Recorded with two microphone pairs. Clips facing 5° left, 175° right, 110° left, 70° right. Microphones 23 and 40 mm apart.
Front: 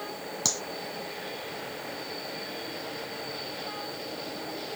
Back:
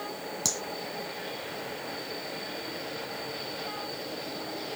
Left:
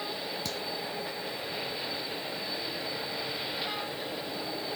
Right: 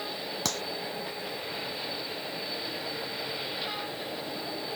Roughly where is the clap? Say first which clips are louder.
Front 2 dB, right 3 dB; right.